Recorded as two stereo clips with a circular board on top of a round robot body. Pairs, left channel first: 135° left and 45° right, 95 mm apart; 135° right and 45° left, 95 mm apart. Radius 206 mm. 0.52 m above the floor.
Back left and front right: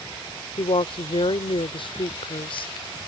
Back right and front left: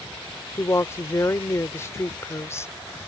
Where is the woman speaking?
160° left.